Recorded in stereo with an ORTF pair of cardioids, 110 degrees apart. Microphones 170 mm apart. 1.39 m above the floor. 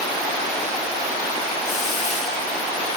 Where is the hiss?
45° left, 6.5 m.